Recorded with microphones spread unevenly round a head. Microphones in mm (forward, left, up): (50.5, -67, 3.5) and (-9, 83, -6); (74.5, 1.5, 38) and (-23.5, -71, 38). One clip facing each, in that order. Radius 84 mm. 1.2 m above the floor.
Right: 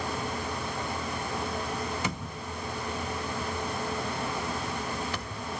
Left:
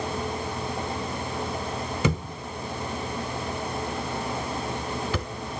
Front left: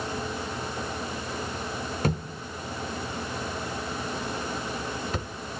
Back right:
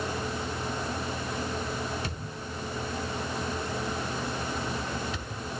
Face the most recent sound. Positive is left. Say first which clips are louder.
# left 7 dB, front left 7 dB
turn(degrees=100)